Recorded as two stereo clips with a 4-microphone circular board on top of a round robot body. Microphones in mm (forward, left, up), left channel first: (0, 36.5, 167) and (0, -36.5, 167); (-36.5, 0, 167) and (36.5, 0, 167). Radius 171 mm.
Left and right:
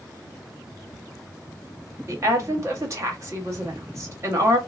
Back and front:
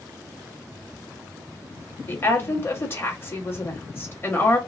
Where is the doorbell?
I don't hear a doorbell.